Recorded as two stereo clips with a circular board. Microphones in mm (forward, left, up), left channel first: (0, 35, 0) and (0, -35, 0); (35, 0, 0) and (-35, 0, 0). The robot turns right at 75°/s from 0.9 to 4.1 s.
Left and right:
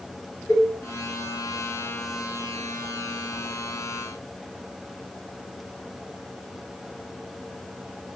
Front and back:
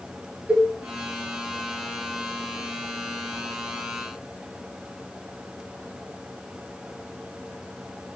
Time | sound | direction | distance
0.5 | a cowbell | 115° left | 1.1 m